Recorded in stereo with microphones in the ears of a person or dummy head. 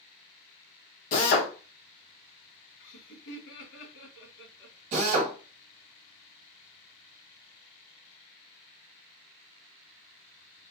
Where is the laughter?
75° left (ahead or behind), 2.5 m.